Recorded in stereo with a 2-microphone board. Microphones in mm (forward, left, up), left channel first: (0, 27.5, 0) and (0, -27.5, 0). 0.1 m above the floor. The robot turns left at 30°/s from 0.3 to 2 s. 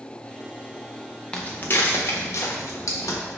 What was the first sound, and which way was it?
Footsteps, 15° left (ahead or behind).